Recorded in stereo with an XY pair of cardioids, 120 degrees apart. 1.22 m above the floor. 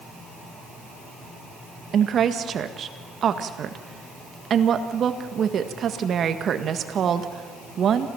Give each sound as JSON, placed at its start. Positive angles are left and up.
{"t": 1.9, "sound": "a woman speaking", "azimuth_deg": -45, "distance_m": 1.7}